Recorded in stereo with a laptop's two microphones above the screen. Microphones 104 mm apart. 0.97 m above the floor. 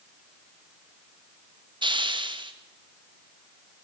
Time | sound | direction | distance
1.8 | a hiss | 50° right (ahead or behind) | 1.0 m